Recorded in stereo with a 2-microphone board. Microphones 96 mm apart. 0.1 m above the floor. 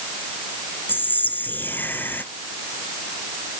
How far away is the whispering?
About 1.1 m.